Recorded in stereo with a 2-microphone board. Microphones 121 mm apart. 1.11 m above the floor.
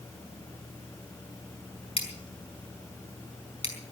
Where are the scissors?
50° left (ahead or behind), 5 m.